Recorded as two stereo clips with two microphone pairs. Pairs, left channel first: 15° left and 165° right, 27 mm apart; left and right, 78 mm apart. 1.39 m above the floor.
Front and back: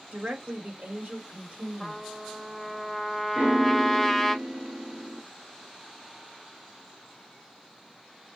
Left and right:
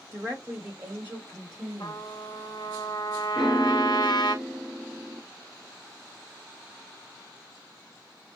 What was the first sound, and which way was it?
A woman speaking, 145° right.